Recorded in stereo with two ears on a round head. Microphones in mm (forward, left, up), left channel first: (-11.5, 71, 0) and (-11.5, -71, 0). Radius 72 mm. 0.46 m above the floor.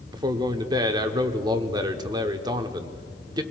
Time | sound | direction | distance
0.1 | a man speaking | 25° right (ahead or behind) | 0.8 m